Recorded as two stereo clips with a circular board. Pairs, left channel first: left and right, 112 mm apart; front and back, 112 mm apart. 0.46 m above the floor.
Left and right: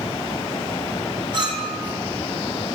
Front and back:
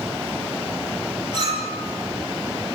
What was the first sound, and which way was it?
A clink, 135° right.